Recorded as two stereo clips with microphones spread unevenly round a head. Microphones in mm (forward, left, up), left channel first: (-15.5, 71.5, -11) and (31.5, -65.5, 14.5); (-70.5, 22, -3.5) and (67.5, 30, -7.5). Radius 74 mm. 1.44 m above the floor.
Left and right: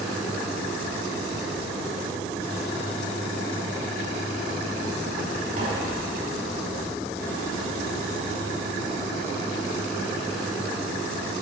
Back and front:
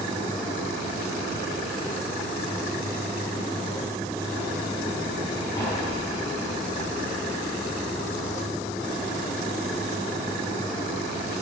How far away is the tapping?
About 4.5 m.